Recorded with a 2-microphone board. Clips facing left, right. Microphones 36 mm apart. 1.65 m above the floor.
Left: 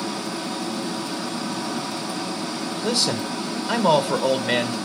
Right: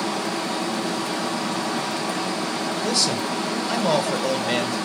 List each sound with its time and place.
0.0 s running water: 60° right (ahead or behind), 1.7 m
2.8 s a man speaking: 10° left (ahead or behind), 1.3 m